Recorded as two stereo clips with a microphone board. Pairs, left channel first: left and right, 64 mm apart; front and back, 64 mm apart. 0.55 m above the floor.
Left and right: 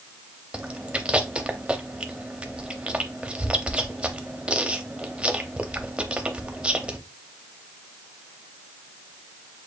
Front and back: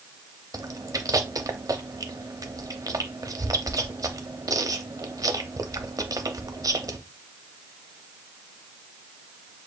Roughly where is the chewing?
Behind.